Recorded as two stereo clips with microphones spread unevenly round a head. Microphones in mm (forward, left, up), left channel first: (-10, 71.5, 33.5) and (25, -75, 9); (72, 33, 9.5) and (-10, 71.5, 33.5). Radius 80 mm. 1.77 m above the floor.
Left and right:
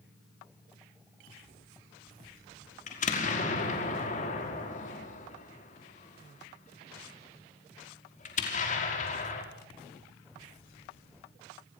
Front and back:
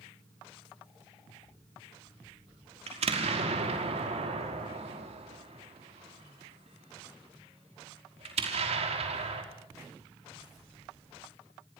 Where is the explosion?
150° left, 5.5 m.